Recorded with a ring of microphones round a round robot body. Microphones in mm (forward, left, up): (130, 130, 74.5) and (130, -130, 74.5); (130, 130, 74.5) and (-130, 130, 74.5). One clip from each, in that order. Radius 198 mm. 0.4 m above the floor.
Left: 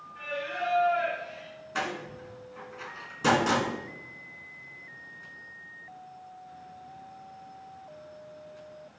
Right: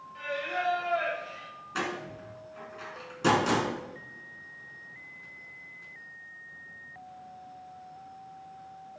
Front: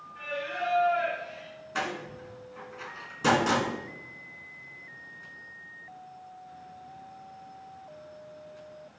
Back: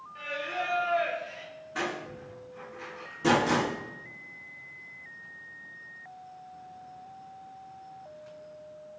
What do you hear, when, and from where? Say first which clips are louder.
0.1 s singing: right 1 dB, even; 130° right, 3 m
1.8 s a door slam: left 1 dB, front 1 dB; 10° left, 3 m